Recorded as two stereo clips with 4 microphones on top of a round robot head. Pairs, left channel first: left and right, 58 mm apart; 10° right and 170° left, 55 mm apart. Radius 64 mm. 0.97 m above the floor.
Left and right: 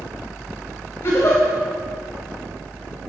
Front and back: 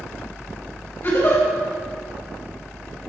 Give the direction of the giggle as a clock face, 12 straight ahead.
11 o'clock.